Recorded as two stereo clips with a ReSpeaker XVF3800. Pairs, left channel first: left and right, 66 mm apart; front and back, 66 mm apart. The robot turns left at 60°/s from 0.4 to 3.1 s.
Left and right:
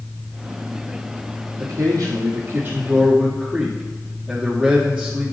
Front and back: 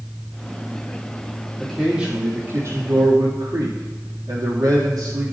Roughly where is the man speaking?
Right.